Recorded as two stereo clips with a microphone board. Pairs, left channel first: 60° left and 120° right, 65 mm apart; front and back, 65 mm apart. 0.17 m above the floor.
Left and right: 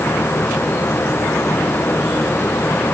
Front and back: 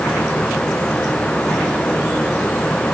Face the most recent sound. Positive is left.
No sound to turn to.